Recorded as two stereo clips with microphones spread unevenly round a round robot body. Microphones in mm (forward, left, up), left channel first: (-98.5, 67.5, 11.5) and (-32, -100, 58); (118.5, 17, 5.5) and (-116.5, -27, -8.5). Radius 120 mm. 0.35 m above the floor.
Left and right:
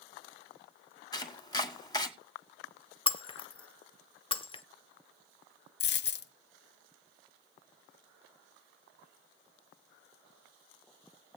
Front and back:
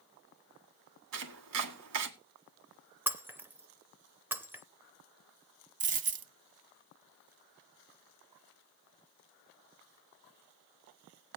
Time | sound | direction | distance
1.1 | chopping | 175° left | 1.7 m
3.1 | breaking glass | 115° left | 0.6 m
5.8 | a dropped coin | 130° left | 0.8 m